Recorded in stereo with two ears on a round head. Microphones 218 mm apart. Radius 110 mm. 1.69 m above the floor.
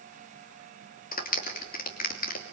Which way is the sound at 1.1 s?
40° left (ahead or behind).